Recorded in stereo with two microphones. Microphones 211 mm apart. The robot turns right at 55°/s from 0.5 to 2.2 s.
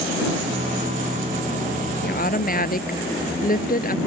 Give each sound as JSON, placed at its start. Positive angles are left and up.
{"t": 2.0, "sound": "a woman speaking", "side_deg": 50}